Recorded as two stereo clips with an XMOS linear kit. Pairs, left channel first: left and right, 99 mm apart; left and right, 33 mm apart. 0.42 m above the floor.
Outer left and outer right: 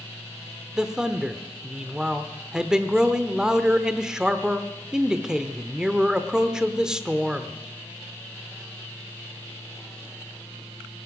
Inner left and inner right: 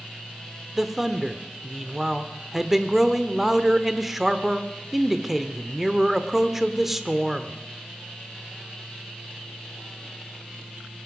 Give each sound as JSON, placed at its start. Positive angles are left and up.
{"t": 0.8, "sound": "a man speaking", "side_deg": -5, "distance_m": 0.8}